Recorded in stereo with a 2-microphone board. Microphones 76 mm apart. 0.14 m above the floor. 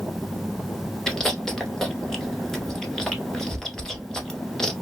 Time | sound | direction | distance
1.1 | chewing | 5° left (ahead or behind) | 0.8 m